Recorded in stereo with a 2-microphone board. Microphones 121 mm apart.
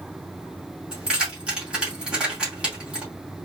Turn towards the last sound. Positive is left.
turn(degrees=-10)  # may be behind; listen again after turning